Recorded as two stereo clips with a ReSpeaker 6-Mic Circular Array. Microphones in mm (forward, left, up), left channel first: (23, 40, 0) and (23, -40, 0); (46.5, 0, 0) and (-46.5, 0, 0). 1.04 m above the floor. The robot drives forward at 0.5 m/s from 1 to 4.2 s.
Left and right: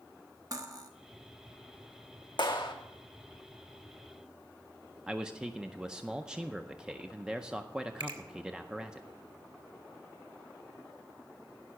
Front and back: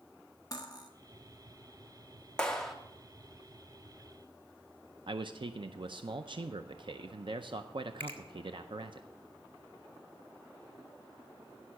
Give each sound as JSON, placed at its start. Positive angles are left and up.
{"t": 0.5, "sound": "cutlery clinking", "azimuth_deg": -45, "distance_m": 1.1}
{"t": 2.4, "sound": "a clap", "azimuth_deg": 80, "distance_m": 1.2}
{"t": 5.1, "sound": "a man speaking", "azimuth_deg": -170, "distance_m": 0.5}
{"t": 8.0, "sound": "a finger snap", "azimuth_deg": -70, "distance_m": 1.7}